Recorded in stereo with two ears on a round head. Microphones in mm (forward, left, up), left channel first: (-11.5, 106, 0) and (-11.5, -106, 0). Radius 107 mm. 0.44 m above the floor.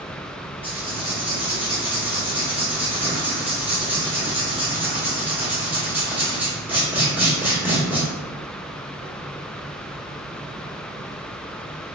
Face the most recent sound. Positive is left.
turn(degrees=-10)  # may be behind; listen again after turning